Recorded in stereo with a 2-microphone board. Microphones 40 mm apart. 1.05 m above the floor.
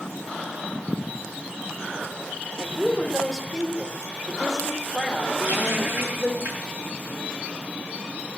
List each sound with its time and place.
2.6 s a woman speaking: 10° right (ahead or behind), 3 m
5.4 s a running tap: 35° right (ahead or behind), 9.5 m